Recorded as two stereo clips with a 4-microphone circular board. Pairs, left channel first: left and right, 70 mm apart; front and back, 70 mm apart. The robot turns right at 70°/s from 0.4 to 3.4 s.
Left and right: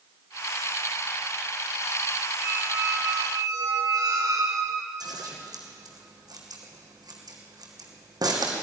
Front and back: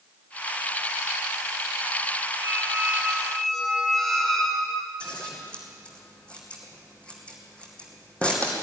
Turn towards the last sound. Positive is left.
turn(degrees=-75)